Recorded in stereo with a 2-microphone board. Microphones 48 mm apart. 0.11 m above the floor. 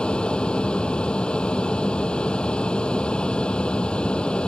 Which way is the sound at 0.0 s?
20° left (ahead or behind).